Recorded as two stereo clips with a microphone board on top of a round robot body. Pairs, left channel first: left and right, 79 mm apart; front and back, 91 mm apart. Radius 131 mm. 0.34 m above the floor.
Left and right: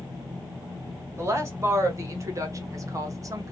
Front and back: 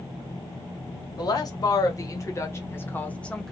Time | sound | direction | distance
1.2 | a woman speaking | 40° right | 1.9 m